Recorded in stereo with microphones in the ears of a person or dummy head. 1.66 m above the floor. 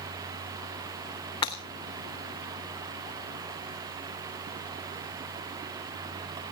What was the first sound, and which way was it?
Breaking glass, 25° left (ahead or behind).